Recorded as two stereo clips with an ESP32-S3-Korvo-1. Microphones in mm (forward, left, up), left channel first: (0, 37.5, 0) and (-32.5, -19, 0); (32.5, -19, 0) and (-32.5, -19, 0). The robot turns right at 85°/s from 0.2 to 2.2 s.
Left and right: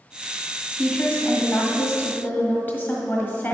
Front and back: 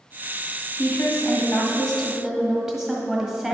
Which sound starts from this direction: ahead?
A woman speaking, at 0.8 s.